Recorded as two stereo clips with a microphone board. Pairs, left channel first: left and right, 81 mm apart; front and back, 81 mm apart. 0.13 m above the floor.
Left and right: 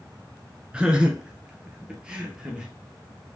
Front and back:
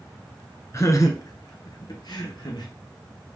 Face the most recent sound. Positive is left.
turn(degrees=-10)